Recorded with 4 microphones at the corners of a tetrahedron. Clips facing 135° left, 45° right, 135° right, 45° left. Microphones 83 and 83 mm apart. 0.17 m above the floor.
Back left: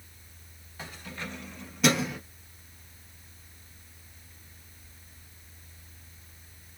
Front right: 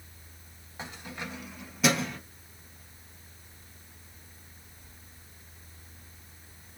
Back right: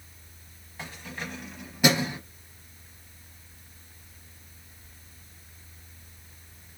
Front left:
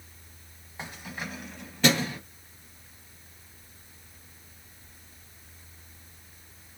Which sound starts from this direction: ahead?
Keys jangling, at 0.8 s.